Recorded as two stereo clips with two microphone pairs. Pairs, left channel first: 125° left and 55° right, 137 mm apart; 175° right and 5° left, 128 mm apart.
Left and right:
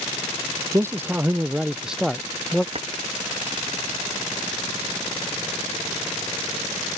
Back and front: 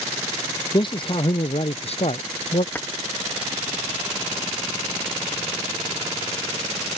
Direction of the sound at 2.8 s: 100° right.